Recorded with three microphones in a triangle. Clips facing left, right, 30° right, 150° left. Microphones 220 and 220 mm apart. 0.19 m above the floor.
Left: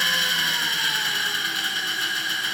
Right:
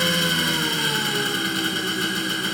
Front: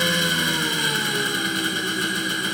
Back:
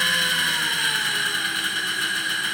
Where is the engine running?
65° right, 0.8 m.